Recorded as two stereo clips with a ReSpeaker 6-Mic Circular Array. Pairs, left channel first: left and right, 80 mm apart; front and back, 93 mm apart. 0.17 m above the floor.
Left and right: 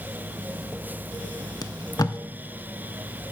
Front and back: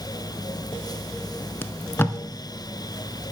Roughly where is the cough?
No cough in this recording.